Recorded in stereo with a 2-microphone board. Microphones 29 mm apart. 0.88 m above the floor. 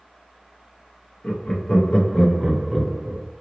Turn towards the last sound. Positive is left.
turn(degrees=-50)  # may be behind; listen again after turning